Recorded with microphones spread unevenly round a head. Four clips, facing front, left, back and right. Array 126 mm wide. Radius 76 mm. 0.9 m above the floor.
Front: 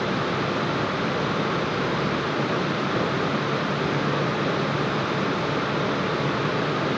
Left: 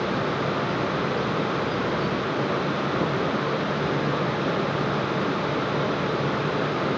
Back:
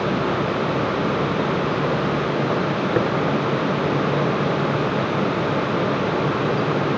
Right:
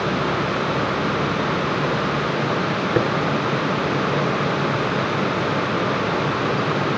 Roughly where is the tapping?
Right.